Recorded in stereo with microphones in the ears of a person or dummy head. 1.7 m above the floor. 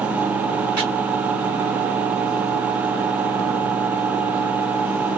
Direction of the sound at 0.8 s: 50° right (ahead or behind).